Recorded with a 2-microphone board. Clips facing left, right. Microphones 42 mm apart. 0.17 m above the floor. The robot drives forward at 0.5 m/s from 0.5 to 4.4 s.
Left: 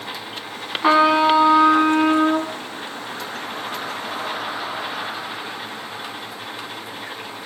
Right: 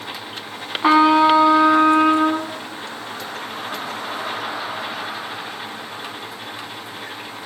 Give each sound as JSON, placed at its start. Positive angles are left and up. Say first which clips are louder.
{"t": 0.8, "sound": "a trumpet", "louder": "right 2 dB", "side_deg": -10, "distance_m": 1.2}